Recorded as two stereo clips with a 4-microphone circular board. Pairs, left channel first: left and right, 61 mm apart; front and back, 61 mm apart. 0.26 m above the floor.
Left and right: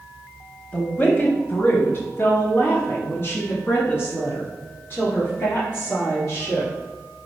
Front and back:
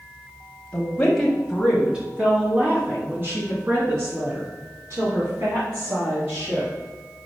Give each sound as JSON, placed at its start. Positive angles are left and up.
{"t": 0.7, "sound": "a woman speaking", "azimuth_deg": 45, "distance_m": 1.1}